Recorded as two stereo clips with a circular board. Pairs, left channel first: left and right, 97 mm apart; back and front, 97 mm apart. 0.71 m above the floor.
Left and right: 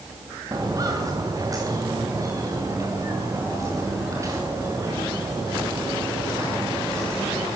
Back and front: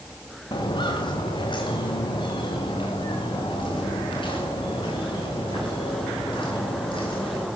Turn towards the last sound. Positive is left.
turn(degrees=-150)